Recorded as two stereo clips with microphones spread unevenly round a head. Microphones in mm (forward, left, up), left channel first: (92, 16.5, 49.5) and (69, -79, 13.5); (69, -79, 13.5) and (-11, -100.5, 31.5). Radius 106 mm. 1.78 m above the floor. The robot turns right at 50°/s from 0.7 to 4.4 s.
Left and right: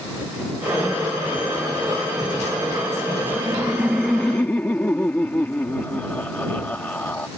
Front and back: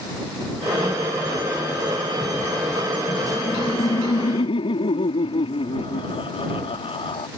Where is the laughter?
45° right; by 7.3 s 10° left.